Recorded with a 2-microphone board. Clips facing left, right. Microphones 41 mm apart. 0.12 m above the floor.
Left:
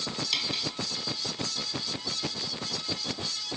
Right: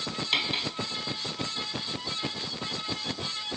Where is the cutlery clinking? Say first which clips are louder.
Right 5 dB; 25° right (ahead or behind), 1.5 m.